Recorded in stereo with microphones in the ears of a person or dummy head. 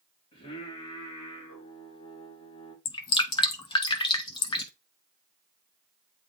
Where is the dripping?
20° left (ahead or behind), 0.6 m.